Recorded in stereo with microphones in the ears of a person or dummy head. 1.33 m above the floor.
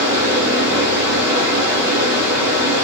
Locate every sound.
0.0 s a fan: 15° right (ahead or behind), 1.2 m